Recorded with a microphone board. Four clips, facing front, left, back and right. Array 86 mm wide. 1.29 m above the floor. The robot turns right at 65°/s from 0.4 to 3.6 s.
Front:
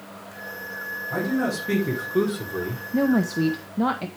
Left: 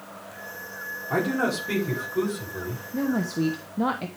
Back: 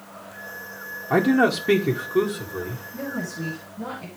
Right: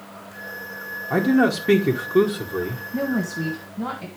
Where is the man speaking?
160° right, 1.4 m; by 2.8 s 45° right, 1.4 m.